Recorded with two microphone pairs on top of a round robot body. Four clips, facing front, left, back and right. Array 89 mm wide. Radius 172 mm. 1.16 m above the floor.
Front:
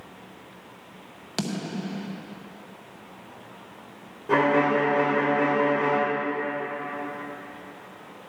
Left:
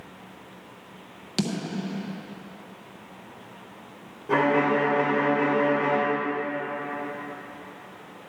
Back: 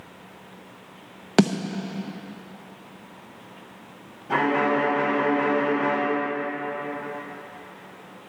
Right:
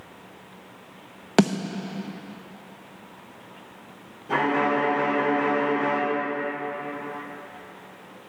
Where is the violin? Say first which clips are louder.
Left 1 dB, front 1 dB; 20° left, 4.5 m.